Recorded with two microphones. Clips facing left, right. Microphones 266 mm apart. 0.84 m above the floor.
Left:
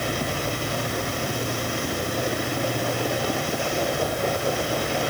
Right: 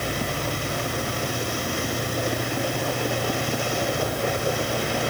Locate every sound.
Only background noise.